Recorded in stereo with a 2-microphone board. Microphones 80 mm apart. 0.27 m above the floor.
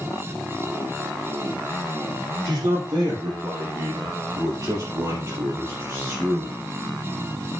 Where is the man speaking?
55° right (ahead or behind), 7 m; by 6.6 s 30° right (ahead or behind), 3.5 m.